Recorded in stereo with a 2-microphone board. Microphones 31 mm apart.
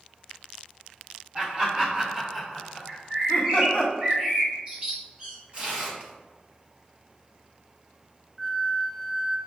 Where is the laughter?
40° right (ahead or behind), 1.5 m; by 3.9 s 45° left (ahead or behind), 1.2 m.